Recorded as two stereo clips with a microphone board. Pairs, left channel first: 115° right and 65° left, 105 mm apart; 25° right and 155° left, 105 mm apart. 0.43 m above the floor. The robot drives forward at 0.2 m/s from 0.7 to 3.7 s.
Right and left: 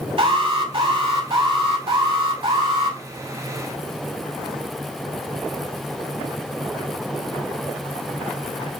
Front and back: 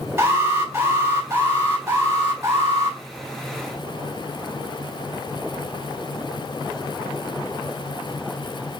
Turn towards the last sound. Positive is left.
turn(degrees=100)